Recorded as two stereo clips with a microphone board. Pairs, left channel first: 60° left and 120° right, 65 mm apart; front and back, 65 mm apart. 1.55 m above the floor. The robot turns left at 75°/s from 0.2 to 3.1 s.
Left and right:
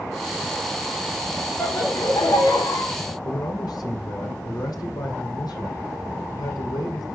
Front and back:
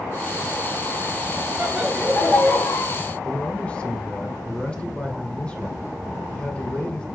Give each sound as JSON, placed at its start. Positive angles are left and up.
{"t": 1.6, "sound": "laughter", "azimuth_deg": 115, "distance_m": 3.0}
{"t": 3.2, "sound": "a man speaking", "azimuth_deg": 70, "distance_m": 1.4}